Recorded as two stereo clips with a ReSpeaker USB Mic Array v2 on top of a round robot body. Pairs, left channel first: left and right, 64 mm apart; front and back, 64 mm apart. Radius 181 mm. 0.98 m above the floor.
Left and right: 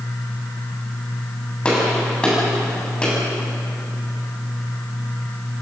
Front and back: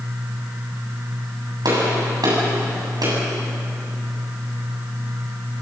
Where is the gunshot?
165° left, 8.5 m.